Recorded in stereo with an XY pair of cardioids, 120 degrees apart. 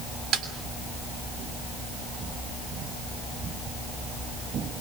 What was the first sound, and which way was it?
A snare drum, 65° right.